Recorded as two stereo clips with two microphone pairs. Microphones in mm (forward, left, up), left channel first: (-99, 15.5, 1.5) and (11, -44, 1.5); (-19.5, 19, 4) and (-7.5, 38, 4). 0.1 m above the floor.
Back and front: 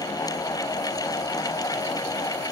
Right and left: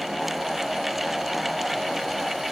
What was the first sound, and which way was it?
Only background noise.